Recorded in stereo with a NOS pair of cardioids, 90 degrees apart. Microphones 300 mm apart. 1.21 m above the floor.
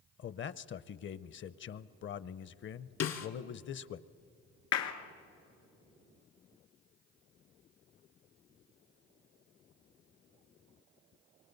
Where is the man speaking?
45° left, 0.7 m.